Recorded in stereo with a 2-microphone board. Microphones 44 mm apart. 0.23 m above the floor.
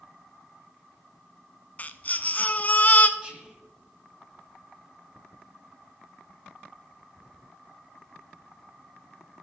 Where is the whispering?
20° right (ahead or behind), 1.4 m.